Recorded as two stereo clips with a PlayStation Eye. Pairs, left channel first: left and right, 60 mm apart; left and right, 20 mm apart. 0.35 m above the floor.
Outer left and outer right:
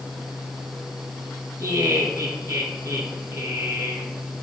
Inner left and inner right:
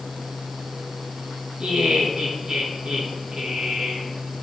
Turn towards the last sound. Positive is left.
turn(degrees=-75)  # may be behind; listen again after turning